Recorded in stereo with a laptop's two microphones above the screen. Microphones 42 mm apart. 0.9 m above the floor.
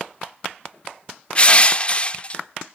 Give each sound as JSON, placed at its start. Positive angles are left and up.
{"t": 1.4, "sound": "crushing", "side_deg": 30, "distance_m": 0.6}